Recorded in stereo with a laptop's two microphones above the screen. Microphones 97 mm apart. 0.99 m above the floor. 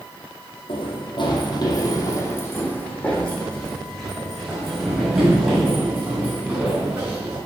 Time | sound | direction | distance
0.7 | running footsteps | 65° left (ahead or behind) | 2.5 m